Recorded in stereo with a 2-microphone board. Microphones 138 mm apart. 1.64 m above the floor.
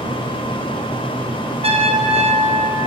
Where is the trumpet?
45° right (ahead or behind), 0.9 m.